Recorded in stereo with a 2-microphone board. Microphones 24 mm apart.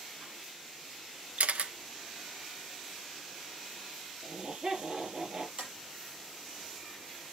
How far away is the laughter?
About 6.5 m.